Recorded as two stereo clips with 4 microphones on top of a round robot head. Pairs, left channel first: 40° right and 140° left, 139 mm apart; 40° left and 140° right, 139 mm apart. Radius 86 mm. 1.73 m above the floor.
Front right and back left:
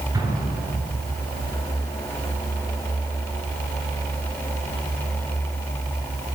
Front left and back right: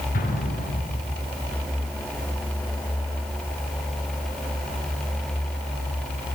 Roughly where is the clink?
No clink in this recording.